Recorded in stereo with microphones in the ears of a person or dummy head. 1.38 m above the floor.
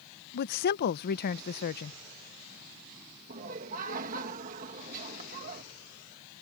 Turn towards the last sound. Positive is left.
turn(degrees=-45)  # may be behind; listen again after turning